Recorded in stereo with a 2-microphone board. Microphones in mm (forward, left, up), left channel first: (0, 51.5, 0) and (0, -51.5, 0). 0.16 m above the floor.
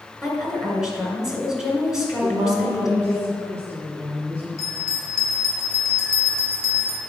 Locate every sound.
0.2 s a woman speaking: 5° right (ahead or behind), 2.5 m
2.2 s a woman speaking: 30° right (ahead or behind), 2 m
4.6 s a bell: 5° left (ahead or behind), 2.5 m